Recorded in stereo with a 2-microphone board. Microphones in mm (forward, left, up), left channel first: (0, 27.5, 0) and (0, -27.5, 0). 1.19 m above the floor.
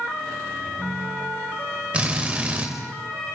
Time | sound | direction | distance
0.6 | a ringtone | 30° left (ahead or behind) | 6.5 m
1.9 | a drill | 25° right (ahead or behind) | 5 m